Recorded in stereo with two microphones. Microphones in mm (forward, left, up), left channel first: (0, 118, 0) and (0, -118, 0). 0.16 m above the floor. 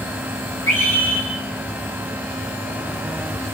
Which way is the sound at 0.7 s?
60° left (ahead or behind).